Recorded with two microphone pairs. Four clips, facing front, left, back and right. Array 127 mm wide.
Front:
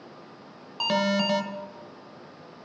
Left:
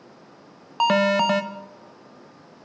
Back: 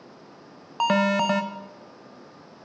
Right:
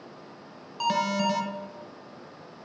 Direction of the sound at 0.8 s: 110° left.